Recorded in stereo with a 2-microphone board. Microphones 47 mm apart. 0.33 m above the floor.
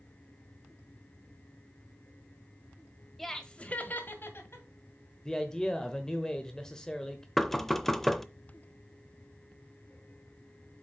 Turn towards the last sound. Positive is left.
turn(degrees=5)  # may be behind; listen again after turning